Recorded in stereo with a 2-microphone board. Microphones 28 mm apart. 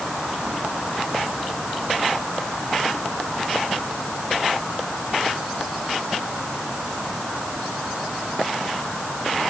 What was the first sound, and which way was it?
Only background noise.